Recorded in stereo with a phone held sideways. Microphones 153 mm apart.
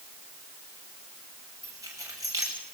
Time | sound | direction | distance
1.6 | keys jangling | 25° right (ahead or behind) | 7 m